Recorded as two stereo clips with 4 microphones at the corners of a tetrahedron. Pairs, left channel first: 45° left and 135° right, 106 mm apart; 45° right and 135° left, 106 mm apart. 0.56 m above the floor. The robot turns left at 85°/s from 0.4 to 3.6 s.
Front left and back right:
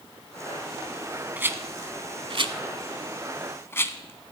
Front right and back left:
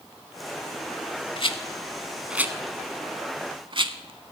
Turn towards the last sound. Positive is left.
turn(degrees=105)